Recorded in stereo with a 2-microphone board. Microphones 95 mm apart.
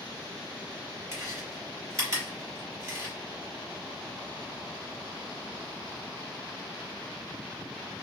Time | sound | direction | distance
1.1 | chewing | 35° right (ahead or behind) | 2.5 m